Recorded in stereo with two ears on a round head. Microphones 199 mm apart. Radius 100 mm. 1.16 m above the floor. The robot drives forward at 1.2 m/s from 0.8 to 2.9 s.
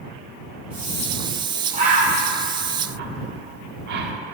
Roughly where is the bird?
Right.